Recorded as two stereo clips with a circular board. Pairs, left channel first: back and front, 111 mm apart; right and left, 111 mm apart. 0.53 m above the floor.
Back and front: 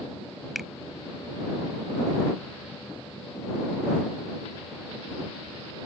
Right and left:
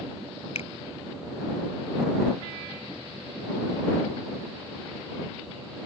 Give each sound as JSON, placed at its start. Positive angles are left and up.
{"t": 0.6, "sound": "a finger snap", "azimuth_deg": -85}